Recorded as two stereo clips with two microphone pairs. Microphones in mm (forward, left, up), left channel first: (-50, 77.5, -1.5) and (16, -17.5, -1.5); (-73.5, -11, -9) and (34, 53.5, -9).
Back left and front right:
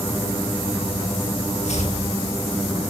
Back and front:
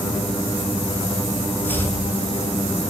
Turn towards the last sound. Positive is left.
turn(degrees=135)